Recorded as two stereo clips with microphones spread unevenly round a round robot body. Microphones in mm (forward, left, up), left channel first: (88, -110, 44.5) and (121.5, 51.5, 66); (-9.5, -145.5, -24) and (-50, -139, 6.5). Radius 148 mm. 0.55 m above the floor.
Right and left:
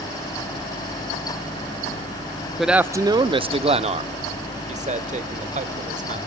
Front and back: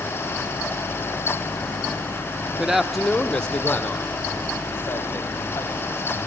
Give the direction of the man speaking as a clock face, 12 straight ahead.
1 o'clock.